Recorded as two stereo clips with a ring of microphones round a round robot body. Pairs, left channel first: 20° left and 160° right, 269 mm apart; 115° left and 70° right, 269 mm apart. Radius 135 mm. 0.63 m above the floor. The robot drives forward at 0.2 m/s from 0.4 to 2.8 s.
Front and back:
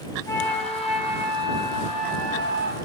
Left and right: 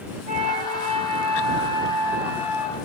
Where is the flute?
45° right, 0.5 m; by 2.8 s 155° right, 0.6 m.